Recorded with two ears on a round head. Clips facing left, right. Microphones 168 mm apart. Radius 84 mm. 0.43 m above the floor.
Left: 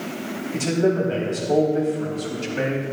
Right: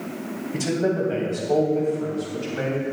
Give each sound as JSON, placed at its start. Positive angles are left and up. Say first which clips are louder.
{"t": 0.5, "sound": "a man speaking", "louder": "left 3 dB", "side_deg": -10, "distance_m": 3.0}